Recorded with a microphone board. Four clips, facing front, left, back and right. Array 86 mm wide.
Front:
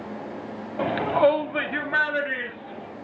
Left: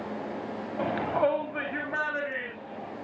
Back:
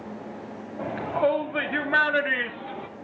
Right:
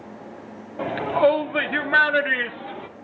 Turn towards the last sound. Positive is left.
turn(degrees=-125)